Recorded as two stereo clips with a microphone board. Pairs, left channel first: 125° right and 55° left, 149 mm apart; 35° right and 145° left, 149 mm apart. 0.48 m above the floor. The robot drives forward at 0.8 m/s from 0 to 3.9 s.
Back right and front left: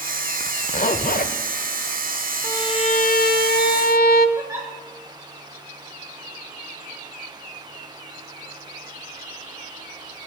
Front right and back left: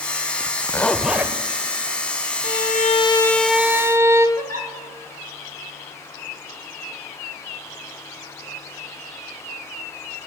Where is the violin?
55° right, 0.7 m; by 4.3 s 140° right, 0.9 m.